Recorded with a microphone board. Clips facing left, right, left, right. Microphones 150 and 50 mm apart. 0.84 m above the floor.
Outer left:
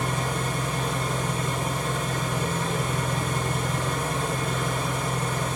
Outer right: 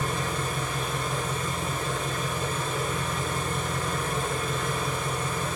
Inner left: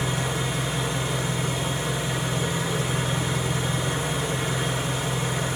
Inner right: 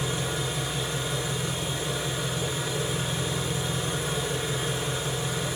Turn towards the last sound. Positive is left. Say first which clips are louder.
# outer left 2 dB, inner left 3 dB
turn(degrees=85)